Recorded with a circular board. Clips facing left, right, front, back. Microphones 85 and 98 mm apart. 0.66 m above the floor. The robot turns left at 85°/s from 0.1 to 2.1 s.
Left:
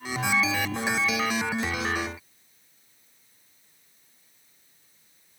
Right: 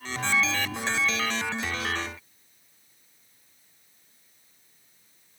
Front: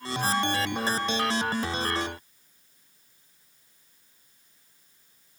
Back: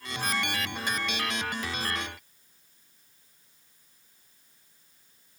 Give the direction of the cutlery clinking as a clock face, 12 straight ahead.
I don't hear cutlery clinking.